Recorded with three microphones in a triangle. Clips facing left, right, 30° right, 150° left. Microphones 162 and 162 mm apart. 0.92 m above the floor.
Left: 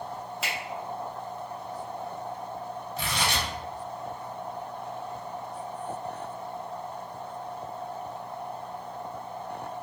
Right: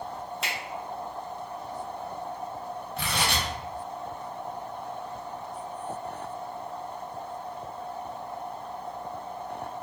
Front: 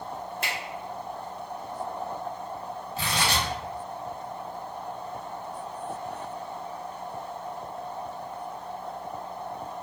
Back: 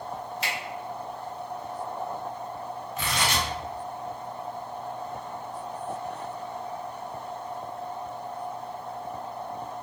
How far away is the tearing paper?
About 0.8 m.